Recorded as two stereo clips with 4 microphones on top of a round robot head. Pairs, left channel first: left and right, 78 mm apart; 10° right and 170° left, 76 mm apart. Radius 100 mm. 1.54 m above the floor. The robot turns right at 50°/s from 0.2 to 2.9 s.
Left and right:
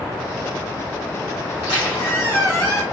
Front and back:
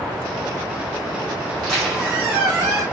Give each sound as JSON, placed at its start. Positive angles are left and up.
{"t": 1.5, "sound": "a squeak", "azimuth_deg": 70, "distance_m": 0.8}